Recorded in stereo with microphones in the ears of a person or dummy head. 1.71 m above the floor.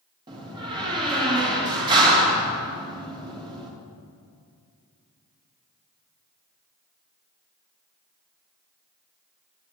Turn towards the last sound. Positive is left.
turn(degrees=-25)  # may be behind; listen again after turning